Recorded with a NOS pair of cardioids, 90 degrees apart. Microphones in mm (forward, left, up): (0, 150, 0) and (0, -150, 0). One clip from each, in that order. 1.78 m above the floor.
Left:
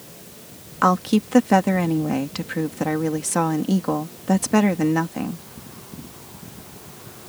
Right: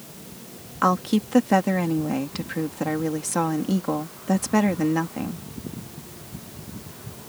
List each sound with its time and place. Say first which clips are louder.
0.8 s a woman speaking: left 3 dB; 15° left